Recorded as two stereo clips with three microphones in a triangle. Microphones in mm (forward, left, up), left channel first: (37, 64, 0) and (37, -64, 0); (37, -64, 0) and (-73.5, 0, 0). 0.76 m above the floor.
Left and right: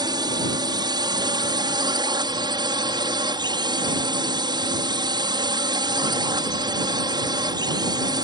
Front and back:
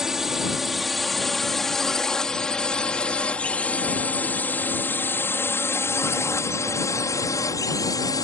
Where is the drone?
125° right; by 8.2 s 65° right.